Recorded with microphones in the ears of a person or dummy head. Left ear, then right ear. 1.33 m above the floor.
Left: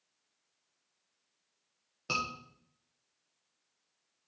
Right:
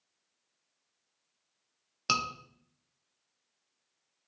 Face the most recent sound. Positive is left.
turn(degrees=-50)  # may be behind; listen again after turning